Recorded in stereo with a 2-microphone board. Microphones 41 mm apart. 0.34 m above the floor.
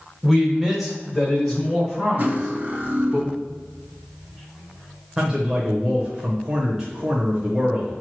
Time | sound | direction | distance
0.2 | a man speaking | 10° right (ahead or behind) | 1.4 m
2.2 | cutlery clinking | 40° right (ahead or behind) | 1.0 m
5.2 | a man speaking | 15° right (ahead or behind) | 1.0 m